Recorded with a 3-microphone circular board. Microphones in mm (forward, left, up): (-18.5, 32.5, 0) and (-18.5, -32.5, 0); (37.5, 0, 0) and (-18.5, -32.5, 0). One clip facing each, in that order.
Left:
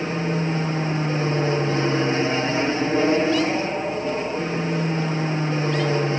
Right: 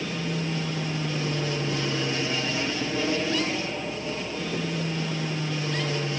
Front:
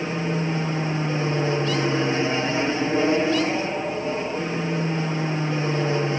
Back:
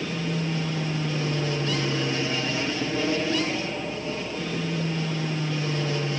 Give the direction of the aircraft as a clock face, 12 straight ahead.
10 o'clock.